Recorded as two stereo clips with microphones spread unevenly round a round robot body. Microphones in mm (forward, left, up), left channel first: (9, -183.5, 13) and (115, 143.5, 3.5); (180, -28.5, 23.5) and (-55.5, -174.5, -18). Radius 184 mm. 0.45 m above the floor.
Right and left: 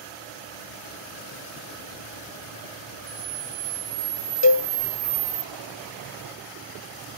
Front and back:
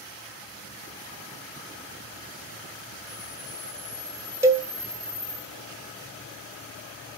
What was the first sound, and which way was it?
A camera shutter, 90° left.